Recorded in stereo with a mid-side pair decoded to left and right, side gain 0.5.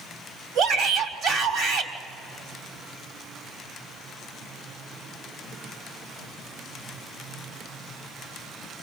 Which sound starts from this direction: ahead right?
A shout, at 0.6 s.